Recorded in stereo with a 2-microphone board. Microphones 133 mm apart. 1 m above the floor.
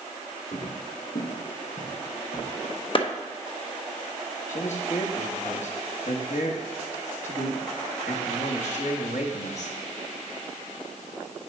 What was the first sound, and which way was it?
Footsteps, 60° left (ahead or behind).